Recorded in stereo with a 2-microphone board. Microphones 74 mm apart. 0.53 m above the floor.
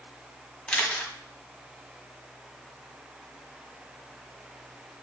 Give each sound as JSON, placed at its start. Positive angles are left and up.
{"t": 0.7, "sound": "a camera shutter", "side_deg": 10, "distance_m": 1.3}